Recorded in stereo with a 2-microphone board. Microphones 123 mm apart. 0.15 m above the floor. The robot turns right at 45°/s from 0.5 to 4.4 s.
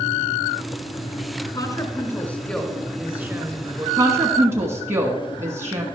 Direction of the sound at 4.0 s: 25° right (ahead or behind).